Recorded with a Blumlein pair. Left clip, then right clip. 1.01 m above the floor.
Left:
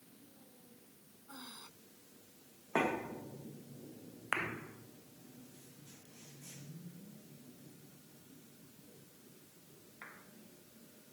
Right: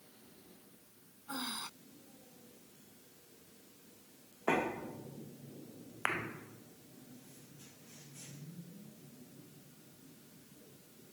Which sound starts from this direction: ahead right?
Breathing, at 1.3 s.